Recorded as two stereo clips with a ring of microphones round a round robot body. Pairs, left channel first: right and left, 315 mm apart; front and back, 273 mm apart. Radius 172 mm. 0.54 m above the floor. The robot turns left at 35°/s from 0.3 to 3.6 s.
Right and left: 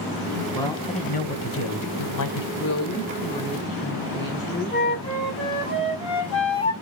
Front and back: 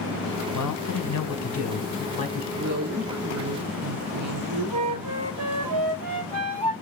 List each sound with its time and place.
0.5 s a man speaking: 5° right, 2.5 m; by 2.5 s 75° right, 2.5 m
2.5 s a woman speaking: 125° right, 2.5 m; by 5.3 s 165° right, 2.5 m
4.7 s a flute: 140° right, 3.5 m